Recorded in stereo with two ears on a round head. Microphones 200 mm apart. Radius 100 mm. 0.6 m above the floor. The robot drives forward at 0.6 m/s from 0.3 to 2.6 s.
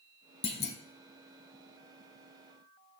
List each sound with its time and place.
0.4 s a clunk: 25° left (ahead or behind), 0.9 m; by 0.8 s 30° left (ahead or behind), 0.7 m